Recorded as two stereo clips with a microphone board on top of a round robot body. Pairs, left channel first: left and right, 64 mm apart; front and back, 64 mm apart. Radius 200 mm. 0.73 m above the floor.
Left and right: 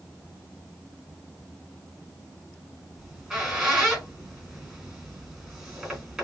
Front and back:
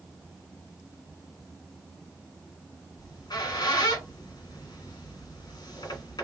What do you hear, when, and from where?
3.0 s a squeak: 10° right, 1.3 m